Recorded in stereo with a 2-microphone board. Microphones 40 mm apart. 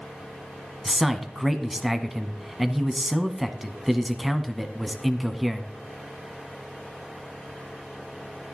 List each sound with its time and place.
0.8 s a man speaking: centre (ahead or behind), 1.3 m